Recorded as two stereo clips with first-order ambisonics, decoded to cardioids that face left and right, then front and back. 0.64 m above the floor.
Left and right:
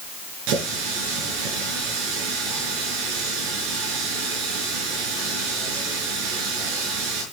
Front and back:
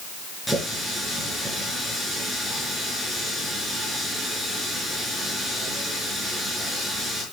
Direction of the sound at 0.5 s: 90° right.